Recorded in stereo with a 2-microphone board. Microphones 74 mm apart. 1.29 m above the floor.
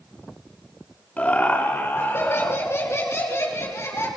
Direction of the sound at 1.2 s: 20° left (ahead or behind).